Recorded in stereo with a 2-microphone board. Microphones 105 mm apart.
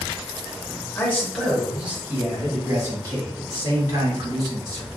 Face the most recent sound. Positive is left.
turn(degrees=-40)  # may be behind; listen again after turning